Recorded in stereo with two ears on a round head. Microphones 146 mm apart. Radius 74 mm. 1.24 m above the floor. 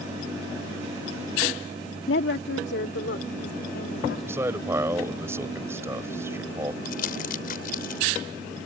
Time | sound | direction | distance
2.1 | a woman speaking | 85° left | ?
4.3 | a man speaking | 15° right (ahead or behind) | ?
6.8 | crumpling | 55° left (ahead or behind) | ?